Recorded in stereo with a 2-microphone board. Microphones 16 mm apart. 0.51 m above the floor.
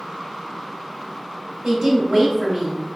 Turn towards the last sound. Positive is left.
turn(degrees=-40)  # may be behind; listen again after turning